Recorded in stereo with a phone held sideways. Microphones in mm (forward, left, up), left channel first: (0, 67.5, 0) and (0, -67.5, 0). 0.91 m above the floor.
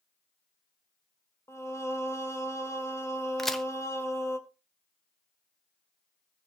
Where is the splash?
I don't hear a splash.